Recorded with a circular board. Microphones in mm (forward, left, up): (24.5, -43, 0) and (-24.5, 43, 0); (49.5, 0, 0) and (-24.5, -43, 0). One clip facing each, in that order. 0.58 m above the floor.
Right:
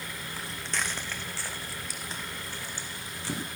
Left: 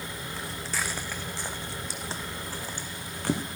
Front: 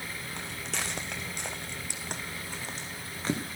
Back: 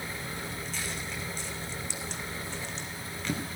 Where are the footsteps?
30° left, 1.9 m; by 3.4 s 85° left, 2 m.